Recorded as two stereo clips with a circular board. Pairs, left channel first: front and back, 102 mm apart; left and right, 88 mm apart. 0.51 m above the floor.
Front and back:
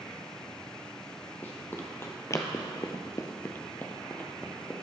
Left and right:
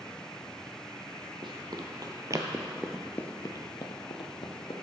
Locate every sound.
1.4 s running footsteps: 70° right, 1.2 m; by 4.7 s 80° left, 1.4 m